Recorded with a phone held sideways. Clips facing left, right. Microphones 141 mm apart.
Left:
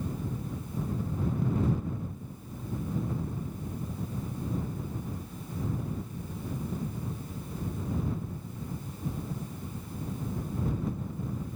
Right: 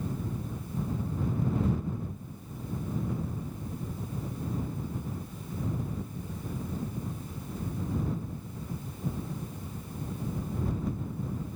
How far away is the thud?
I don't hear a thud.